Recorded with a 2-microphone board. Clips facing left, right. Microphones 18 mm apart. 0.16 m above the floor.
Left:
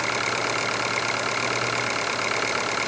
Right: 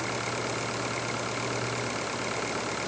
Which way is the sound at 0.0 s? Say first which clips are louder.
Left 7 dB; 25° left (ahead or behind).